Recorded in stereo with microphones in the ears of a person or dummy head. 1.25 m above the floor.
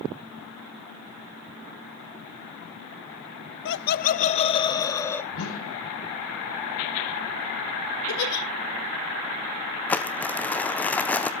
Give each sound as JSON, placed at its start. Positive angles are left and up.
{"t": 3.6, "sound": "laughter", "side_deg": 65, "distance_m": 0.7}
{"t": 5.3, "sound": "a whoosh", "side_deg": 80, "distance_m": 7.0}
{"t": 8.1, "sound": "a giggle", "side_deg": 55, "distance_m": 1.9}
{"t": 9.9, "sound": "crumpling", "side_deg": 5, "distance_m": 0.6}